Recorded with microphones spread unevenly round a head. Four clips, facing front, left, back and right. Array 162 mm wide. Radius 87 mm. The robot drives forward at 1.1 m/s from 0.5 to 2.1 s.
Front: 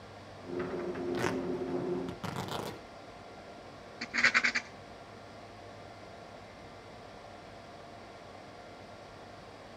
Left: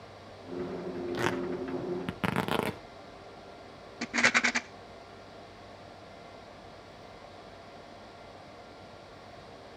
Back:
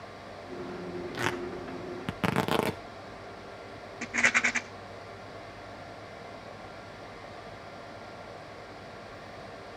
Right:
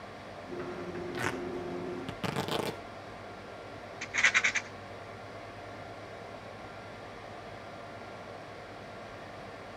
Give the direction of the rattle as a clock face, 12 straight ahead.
8 o'clock.